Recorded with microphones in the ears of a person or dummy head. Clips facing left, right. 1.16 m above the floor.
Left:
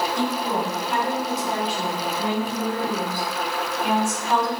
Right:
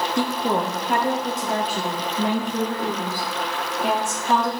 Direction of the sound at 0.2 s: 50° right (ahead or behind).